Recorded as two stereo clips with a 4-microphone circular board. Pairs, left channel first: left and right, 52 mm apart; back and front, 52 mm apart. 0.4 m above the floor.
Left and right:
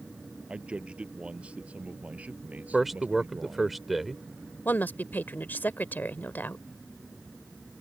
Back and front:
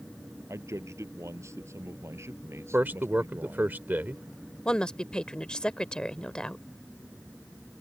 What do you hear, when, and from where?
0.5 s a man speaking: 20° right; by 3.7 s 35° right
2.7 s a man speaking: 5° right
4.7 s a woman speaking: 110° left